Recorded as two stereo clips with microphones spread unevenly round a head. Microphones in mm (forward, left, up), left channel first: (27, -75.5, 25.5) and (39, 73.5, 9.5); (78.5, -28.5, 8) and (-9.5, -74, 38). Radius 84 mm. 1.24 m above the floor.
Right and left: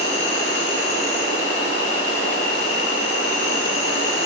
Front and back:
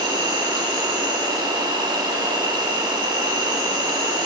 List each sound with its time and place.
0.0 s an insect: 105° right, 4 m